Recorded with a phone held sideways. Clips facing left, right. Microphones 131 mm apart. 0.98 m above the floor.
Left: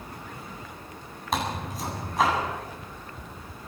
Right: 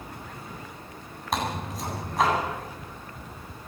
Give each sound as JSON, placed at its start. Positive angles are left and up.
{"t": 1.3, "sound": "tearing paper", "side_deg": 0, "distance_m": 9.0}